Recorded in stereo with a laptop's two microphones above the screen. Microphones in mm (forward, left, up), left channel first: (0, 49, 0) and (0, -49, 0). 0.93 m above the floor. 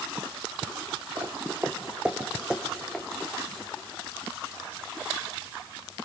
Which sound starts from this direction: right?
Footsteps, at 1.2 s.